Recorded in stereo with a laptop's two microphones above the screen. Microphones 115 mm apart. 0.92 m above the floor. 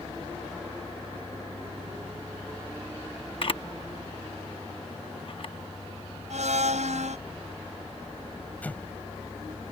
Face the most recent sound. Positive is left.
turn(degrees=15)  # may be behind; listen again after turning